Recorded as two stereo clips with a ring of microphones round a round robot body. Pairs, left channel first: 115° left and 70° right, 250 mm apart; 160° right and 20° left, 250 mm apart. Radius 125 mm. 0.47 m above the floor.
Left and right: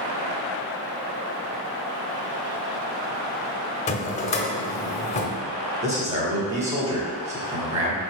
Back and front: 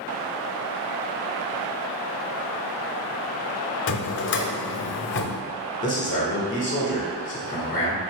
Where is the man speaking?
115° right, 1.4 m.